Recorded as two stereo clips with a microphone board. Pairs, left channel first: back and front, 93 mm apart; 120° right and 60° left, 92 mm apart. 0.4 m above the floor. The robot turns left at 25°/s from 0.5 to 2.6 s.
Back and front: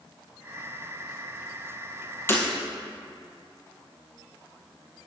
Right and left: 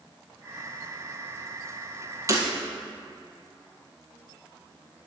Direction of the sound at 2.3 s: 115° left.